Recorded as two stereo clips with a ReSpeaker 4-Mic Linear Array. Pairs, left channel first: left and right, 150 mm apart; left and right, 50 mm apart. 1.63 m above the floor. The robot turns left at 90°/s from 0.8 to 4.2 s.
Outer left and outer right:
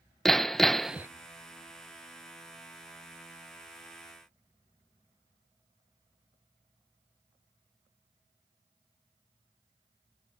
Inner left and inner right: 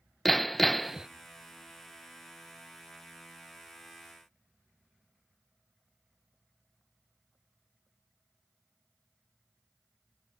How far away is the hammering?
About 0.8 m.